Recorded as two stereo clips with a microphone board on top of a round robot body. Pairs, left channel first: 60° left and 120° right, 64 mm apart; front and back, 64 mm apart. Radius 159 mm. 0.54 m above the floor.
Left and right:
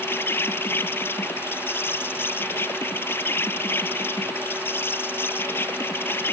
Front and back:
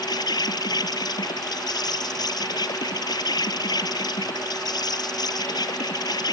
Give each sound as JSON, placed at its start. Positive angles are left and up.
{"t": 0.0, "sound": "an insect", "azimuth_deg": 5}